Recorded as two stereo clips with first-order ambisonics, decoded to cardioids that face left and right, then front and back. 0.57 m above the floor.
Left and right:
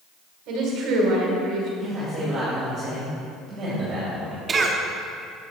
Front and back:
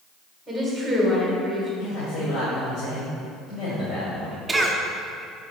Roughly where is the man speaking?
Ahead right.